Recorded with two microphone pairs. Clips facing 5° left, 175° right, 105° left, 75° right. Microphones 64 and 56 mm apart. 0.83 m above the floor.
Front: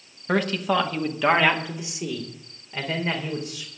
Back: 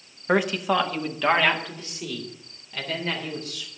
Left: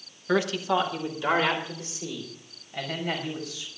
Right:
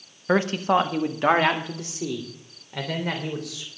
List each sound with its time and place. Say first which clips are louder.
0.3 s a man speaking: back 1 dB, right 4 dB; 110° right, 1.1 m; by 3.7 s 65° right, 4.5 m